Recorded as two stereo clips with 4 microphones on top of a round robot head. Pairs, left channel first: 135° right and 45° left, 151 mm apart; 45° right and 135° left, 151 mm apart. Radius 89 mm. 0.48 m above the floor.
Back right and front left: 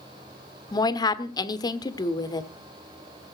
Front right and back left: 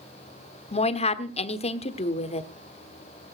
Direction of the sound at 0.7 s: 75° right.